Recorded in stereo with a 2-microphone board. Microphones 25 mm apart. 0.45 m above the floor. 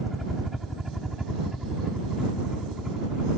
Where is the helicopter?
5° right (ahead or behind); by 3.4 s 25° right (ahead or behind).